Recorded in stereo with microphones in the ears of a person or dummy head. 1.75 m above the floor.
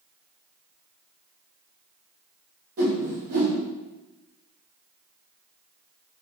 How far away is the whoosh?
About 0.9 m.